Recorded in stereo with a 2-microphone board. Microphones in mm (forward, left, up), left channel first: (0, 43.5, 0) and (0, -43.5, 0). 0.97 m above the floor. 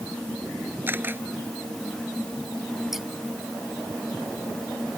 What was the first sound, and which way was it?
A camera shutter, 25° right (ahead or behind).